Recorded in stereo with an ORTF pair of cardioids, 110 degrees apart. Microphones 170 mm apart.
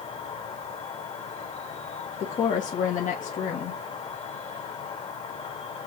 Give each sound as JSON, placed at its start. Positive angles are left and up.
{"t": 0.0, "sound": "an insect", "azimuth_deg": 35, "distance_m": 2.0}
{"t": 2.2, "sound": "a woman speaking", "azimuth_deg": 50, "distance_m": 1.7}